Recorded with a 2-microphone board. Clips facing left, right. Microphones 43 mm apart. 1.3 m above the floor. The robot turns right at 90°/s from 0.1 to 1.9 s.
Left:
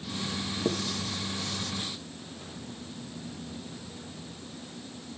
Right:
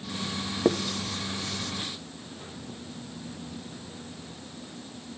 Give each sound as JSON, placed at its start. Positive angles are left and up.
{"t": 0.7, "sound": "writing", "side_deg": -75, "distance_m": 0.6}